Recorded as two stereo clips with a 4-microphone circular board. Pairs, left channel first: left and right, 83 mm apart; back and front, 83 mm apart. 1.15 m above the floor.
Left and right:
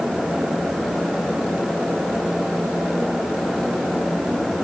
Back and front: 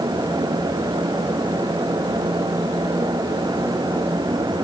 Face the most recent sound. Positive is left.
No sound to turn to.